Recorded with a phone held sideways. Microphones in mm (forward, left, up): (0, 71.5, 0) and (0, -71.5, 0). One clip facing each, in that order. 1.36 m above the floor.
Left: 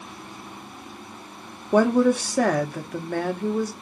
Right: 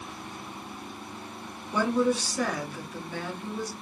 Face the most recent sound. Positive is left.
turn(degrees=60)  # may be behind; listen again after turning